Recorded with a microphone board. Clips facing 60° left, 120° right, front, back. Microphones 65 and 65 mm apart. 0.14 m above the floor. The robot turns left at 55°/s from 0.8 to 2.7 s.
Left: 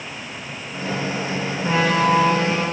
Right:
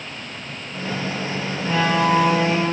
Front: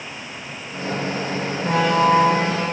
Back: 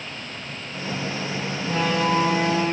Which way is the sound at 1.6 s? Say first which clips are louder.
Left 1 dB, front 6 dB; 5° right.